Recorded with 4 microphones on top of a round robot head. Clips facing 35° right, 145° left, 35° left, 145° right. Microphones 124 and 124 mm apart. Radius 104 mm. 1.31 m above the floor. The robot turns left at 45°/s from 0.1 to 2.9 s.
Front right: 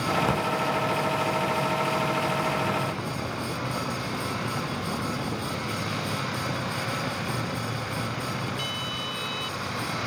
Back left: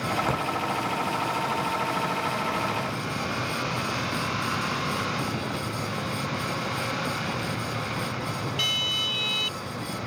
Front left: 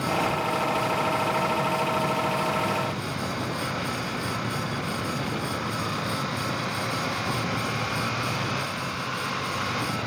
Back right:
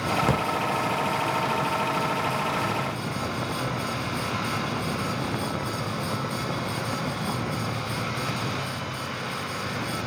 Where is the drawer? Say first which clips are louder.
Front right 2 dB, back right 1 dB; 115° right, 1.5 m; by 0.5 s 130° right, 1.5 m.